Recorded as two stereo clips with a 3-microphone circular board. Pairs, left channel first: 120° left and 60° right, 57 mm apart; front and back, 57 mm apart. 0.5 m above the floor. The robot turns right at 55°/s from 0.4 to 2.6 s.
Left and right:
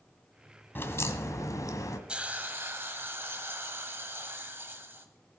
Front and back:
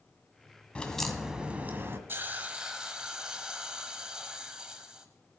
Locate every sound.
0.8 s a crack: 70° left, 1.4 m; by 2.0 s 140° left, 1.4 m
2.1 s a hiss: 130° right, 1.3 m; by 5.1 s 105° right, 1.3 m